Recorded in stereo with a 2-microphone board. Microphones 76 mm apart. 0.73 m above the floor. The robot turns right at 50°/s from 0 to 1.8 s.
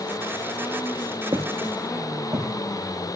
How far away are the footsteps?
About 2 m.